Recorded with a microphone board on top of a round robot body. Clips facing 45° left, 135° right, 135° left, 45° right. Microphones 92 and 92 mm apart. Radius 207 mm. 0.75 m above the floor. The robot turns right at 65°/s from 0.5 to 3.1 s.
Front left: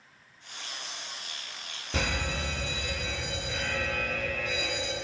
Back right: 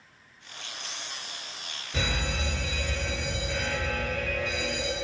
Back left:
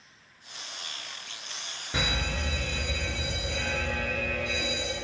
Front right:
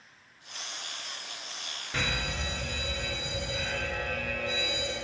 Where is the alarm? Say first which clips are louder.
Even, back left 2 dB; 60° left, 1.9 m; by 4.9 s 135° left, 1.9 m.